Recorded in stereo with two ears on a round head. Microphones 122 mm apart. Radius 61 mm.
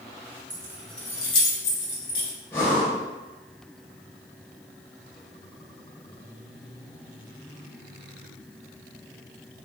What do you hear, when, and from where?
0.5 s keys jangling: 30° right (ahead or behind), 0.8 m; by 2.3 s 65° left (ahead or behind), 1.6 m
2.5 s breathing: 20° left (ahead or behind), 1.5 m